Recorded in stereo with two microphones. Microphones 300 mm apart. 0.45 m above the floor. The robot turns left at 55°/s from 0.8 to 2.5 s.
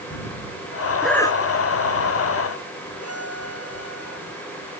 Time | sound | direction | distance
1.0 | breathing | centre (ahead or behind) | ?
3.0 | a violin | 50° left (ahead or behind) | ?